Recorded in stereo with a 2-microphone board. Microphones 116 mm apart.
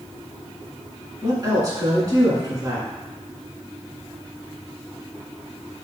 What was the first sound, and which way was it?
A woman speaking, 30° right (ahead or behind).